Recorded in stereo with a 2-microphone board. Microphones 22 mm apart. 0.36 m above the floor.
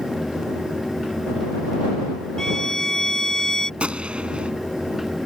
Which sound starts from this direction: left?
A violin, at 2.4 s.